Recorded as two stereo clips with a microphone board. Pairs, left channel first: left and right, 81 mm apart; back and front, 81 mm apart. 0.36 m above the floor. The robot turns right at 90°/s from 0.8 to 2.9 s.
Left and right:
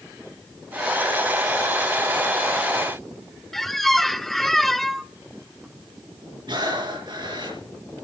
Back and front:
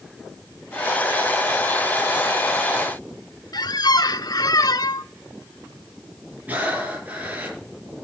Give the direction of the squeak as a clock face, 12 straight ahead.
6 o'clock.